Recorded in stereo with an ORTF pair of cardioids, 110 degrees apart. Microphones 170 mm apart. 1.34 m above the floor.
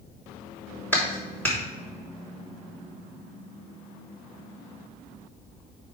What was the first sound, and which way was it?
A clap, 10° left.